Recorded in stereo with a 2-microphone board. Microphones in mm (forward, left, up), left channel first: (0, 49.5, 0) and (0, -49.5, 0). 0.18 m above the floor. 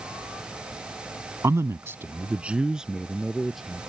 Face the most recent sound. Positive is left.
turn(degrees=0)  # may be behind; listen again after turning